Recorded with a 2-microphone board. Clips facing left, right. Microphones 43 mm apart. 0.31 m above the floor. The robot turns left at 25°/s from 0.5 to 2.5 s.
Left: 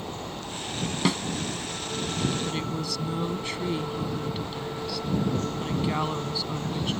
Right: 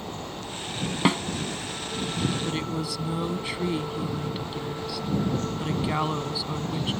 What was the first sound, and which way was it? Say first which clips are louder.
A snare drum: right 3 dB; 25° right (ahead or behind).